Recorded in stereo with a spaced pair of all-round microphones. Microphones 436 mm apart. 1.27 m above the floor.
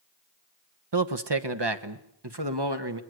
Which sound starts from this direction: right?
A man speaking, at 0.9 s.